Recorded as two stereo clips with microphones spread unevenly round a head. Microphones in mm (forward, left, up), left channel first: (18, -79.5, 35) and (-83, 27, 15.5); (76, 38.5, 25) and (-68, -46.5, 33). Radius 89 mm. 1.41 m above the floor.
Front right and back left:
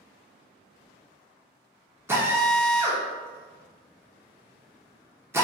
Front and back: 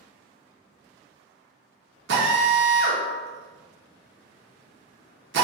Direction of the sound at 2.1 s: 150° right.